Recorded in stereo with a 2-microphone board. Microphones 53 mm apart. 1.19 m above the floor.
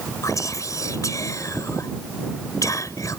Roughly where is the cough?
No cough in this recording.